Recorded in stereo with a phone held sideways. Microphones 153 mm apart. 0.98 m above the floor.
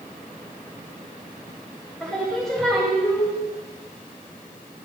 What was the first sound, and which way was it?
Singing, 5° left (ahead or behind).